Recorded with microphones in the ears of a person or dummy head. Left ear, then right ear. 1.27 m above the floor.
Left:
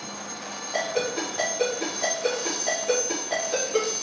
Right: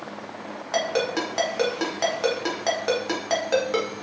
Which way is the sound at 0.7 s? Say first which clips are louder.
Right 3 dB; 60° right (ahead or behind).